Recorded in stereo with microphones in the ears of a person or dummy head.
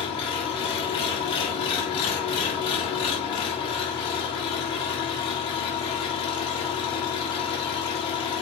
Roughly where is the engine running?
Left.